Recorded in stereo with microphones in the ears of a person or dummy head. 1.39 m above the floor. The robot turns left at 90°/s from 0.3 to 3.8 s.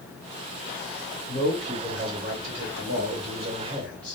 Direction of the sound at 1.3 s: 60° left.